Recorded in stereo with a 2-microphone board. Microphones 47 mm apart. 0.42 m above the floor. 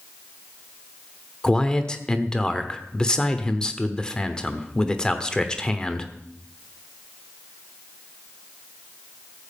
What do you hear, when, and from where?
1.4 s a man speaking: 15° left (ahead or behind), 1.0 m